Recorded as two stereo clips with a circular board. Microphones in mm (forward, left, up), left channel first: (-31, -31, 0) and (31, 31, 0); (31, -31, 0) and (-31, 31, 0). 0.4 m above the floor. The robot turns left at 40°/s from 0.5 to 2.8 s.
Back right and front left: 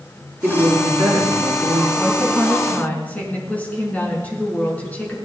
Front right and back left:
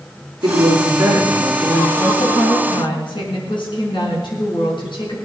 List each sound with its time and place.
0.4 s a woman speaking: 105° left, 5.5 m; by 1.9 s 50° left, 5.5 m
2.0 s a woman speaking: 30° right, 5 m; by 5.2 s 65° right, 5 m